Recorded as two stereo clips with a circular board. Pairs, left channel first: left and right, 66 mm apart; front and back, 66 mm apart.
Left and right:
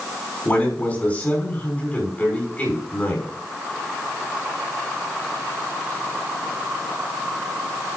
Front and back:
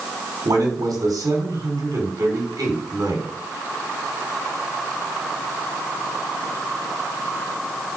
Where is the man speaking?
160° left, 5 m.